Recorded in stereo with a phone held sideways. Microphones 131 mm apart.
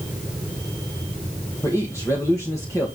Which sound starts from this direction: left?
A man speaking, at 1.6 s.